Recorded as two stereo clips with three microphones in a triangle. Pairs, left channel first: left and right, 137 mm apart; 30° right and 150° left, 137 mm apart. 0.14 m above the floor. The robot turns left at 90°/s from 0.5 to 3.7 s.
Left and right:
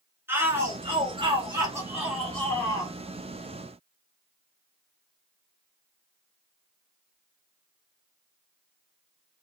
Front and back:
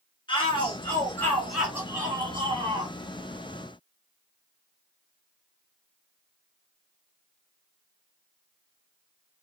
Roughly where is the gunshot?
I don't hear a gunshot.